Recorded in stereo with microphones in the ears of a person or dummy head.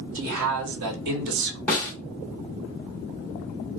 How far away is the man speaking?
About 1.4 m.